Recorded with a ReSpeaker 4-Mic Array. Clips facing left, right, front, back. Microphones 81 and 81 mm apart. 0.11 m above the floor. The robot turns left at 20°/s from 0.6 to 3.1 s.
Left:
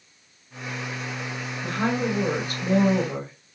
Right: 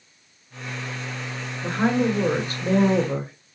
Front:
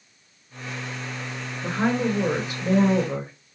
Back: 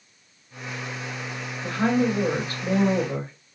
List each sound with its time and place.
1.6 s a woman speaking: 45° right, 1.3 m; by 3.3 s 75° right, 1.3 m